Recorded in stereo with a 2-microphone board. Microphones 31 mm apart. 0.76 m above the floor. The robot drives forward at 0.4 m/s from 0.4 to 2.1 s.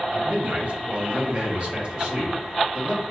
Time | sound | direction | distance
0.1 | a man speaking | 45° right (ahead or behind) | 1.1 m